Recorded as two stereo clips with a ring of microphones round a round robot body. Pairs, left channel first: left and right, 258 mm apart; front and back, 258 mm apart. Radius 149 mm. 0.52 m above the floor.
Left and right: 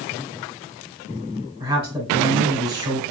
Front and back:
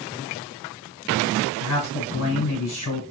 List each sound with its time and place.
1.6 s a man speaking: 15° right, 3 m